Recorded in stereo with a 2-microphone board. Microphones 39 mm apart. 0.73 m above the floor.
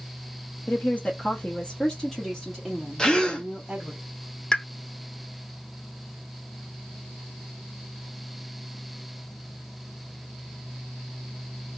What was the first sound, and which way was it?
A woman speaking, 45° left (ahead or behind).